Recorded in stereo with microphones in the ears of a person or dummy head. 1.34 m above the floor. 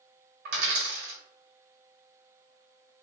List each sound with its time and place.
0.5 s a dropped coin: 60° right (ahead or behind), 1.2 m